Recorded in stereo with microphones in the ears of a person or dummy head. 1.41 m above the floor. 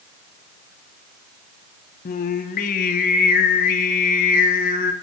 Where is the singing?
45° left (ahead or behind), 0.7 m.